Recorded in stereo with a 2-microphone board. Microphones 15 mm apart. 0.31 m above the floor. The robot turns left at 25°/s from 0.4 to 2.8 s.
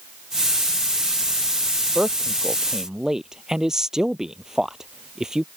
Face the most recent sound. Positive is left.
turn(degrees=-35)  # may be behind; listen again after turning